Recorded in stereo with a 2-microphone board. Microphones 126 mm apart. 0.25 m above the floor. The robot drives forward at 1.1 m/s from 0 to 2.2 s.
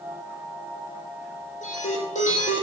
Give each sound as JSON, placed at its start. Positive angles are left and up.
{"t": 1.6, "sound": "an alarm", "side_deg": 80, "distance_m": 9.0}